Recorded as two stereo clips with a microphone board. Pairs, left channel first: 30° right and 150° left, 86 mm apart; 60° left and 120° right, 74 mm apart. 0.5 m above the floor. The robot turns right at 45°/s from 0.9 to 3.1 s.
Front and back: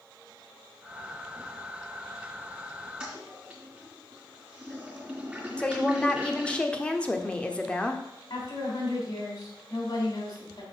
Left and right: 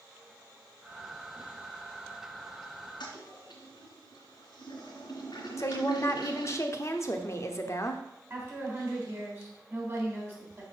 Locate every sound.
3.0 s a toilet flushing: 70° left, 3 m
5.6 s a woman speaking: 40° left, 0.9 m
8.3 s a woman speaking: 60° right, 3.5 m